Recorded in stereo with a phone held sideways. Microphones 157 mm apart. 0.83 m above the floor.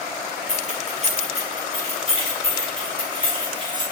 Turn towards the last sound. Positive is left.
turn(degrees=-30)  # may be behind; listen again after turning